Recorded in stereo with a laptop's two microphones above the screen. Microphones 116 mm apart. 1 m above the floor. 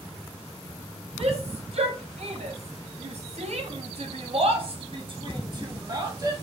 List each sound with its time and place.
1.2 s a shout: 60° right (ahead or behind), 2.5 m; by 6.3 s 30° right (ahead or behind), 2 m